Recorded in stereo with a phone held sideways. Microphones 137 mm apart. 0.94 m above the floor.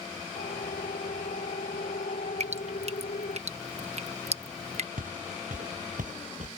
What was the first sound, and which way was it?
A siren, 80° left.